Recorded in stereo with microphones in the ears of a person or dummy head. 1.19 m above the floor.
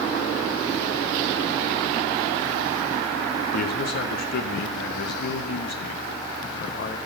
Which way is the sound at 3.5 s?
60° left (ahead or behind).